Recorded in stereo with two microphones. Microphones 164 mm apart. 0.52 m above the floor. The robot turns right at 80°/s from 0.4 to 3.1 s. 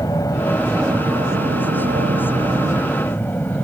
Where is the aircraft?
155° left; by 3.6 s 15° left.